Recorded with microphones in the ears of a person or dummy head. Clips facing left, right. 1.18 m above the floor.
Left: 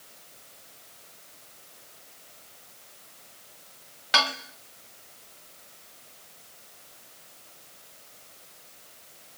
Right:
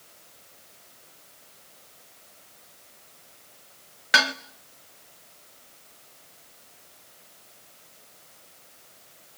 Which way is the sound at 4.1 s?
25° right (ahead or behind).